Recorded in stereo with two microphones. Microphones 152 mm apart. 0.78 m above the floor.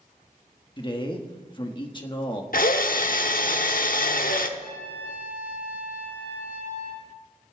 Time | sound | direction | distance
0.8 | a man speaking | 30° left (ahead or behind) | 1.3 m
2.5 | a drill | 65° left (ahead or behind) | 0.8 m
4.6 | a trumpet | 80° left | 6 m